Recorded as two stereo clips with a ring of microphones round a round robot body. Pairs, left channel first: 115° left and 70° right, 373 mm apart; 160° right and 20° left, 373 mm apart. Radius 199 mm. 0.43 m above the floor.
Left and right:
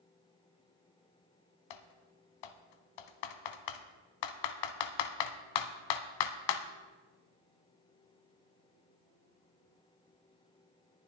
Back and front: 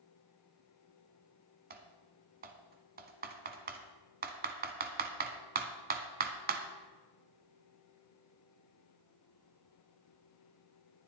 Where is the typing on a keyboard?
90° left, 0.8 m.